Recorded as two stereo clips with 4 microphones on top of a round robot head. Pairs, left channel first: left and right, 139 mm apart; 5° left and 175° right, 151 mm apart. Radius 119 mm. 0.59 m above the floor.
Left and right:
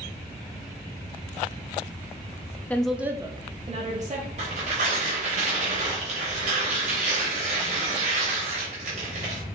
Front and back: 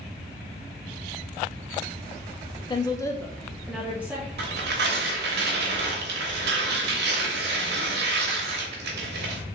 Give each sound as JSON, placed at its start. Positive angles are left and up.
{"t": 2.7, "sound": "a woman speaking", "azimuth_deg": 20, "distance_m": 0.6}
{"t": 4.4, "sound": "tearing paper", "azimuth_deg": -145, "distance_m": 0.7}